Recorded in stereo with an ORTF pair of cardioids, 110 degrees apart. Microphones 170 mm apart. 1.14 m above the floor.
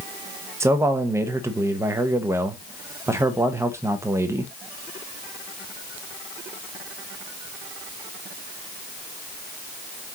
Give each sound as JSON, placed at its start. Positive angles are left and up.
{"t": 0.6, "sound": "a man speaking", "azimuth_deg": -15, "distance_m": 0.9}